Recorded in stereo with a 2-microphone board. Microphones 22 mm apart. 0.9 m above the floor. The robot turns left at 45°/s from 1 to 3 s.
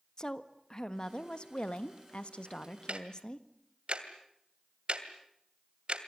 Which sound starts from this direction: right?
Ticking, at 2.9 s.